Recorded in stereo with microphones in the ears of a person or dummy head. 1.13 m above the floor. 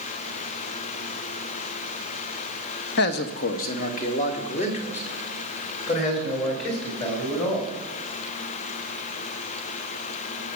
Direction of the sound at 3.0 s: 55° left (ahead or behind).